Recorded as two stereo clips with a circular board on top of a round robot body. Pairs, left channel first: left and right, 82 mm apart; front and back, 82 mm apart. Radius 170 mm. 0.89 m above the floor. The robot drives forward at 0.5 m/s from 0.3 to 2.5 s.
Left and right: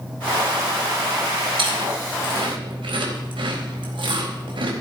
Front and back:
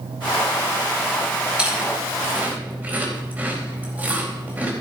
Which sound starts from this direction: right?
Chewing, at 1.6 s.